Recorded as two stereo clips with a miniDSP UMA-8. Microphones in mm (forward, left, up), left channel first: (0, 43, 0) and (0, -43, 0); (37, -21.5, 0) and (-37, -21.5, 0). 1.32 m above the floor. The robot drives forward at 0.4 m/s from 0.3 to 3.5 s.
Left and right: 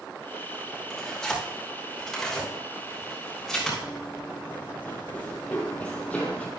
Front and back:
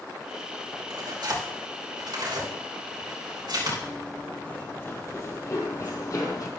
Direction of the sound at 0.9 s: 175° left.